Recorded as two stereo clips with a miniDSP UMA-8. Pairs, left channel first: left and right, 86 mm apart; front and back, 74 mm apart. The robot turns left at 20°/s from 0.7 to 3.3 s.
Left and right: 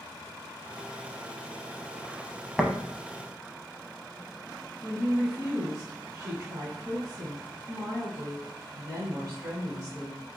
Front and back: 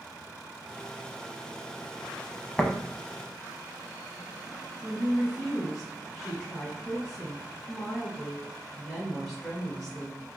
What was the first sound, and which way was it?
Tapping, 25° left.